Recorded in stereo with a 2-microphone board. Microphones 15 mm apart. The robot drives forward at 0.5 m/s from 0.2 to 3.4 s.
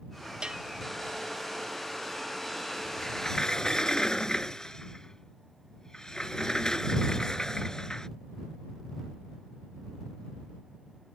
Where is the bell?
70° right (ahead or behind); by 0.6 s 65° right (ahead or behind).